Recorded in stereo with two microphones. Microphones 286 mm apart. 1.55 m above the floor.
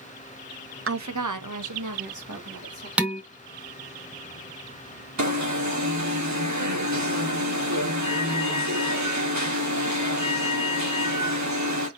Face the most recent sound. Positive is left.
turn(degrees=-70)  # may be behind; listen again after turning